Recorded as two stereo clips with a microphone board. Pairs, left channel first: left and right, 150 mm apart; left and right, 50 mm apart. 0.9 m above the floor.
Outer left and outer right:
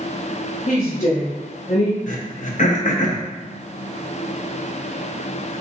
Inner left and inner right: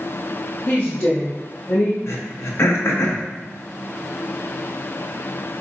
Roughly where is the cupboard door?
I don't hear a cupboard door.